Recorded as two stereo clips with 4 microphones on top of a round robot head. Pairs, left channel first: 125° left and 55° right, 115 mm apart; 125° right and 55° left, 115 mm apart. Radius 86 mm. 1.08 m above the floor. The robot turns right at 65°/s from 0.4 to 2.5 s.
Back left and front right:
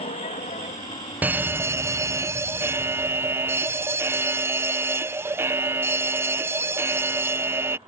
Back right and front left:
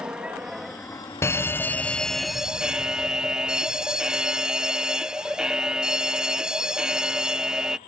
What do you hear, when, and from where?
0.0 s an aircraft: 135° left; by 7.9 s 110° right
1.2 s a fire alarm: 105° right; by 7.8 s 20° right